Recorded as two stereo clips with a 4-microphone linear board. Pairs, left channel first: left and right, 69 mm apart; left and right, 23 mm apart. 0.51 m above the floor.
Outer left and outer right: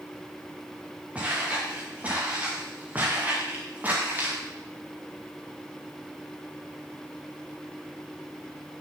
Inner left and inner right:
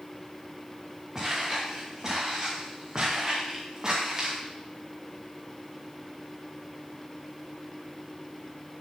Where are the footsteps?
20° right (ahead or behind), 6.5 m; by 4.4 s 25° right (ahead or behind), 5 m.